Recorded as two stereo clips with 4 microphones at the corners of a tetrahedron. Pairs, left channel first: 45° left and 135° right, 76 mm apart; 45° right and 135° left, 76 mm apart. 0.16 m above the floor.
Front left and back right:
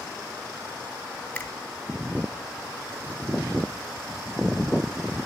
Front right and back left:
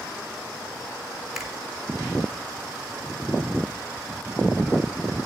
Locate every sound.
1.4 s a finger snap: 65° left, 0.9 m